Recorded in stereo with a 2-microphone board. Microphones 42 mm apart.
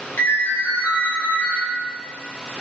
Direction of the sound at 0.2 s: 85° left.